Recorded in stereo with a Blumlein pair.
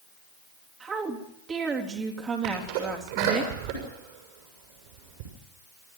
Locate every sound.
0.8 s a woman speaking: 20° right, 3.5 m
2.4 s a sneeze: 50° right, 6.5 m